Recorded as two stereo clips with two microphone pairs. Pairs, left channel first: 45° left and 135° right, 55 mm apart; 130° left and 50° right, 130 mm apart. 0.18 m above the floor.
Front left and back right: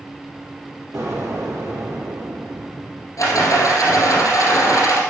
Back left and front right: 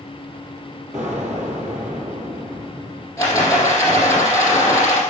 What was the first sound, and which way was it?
An explosion, 135° right.